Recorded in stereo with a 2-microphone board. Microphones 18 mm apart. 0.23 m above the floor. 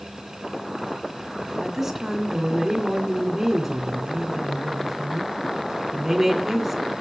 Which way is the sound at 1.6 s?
20° right (ahead or behind).